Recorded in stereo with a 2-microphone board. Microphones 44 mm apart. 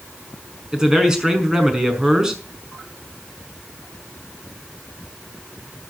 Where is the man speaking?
15° right (ahead or behind), 5.5 m.